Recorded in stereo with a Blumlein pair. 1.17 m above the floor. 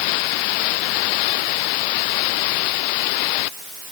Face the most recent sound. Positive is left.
No sound to turn to.